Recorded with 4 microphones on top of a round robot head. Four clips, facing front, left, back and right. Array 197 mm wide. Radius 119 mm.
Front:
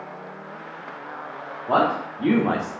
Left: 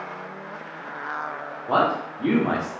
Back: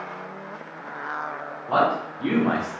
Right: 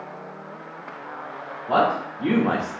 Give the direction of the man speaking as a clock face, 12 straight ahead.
11 o'clock.